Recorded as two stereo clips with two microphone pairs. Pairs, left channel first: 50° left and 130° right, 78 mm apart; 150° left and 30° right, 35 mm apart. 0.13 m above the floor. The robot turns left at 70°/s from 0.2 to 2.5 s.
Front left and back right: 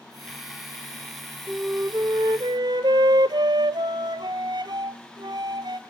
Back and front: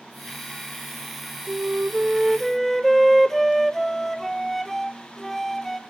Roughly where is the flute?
Ahead right.